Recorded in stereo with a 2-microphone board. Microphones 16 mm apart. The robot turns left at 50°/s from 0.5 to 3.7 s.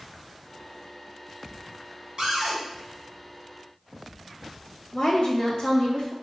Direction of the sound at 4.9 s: 50° left (ahead or behind).